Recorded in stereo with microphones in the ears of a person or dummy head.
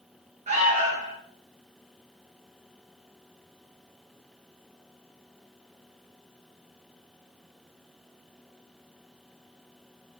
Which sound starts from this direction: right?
An alarm, at 0.5 s.